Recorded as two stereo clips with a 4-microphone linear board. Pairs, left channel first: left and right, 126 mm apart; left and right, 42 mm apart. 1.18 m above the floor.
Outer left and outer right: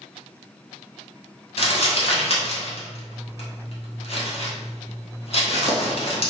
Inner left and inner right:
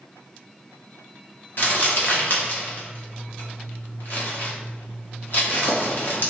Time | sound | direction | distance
1.6 | crumpling | 50° left (ahead or behind) | 0.8 m